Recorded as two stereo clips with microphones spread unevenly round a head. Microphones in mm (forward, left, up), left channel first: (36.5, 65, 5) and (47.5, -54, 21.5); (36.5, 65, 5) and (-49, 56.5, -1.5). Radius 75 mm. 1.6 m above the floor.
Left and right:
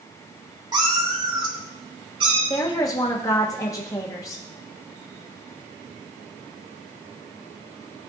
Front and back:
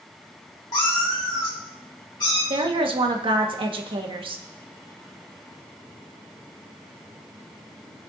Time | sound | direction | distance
0.7 | a cat meowing | 40° right | 2 m
2.5 | a woman speaking | 170° left | 1.5 m